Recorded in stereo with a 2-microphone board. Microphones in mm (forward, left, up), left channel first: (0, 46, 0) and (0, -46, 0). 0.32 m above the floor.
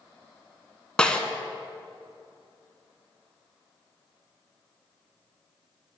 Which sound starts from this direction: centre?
A snare drum, at 1.0 s.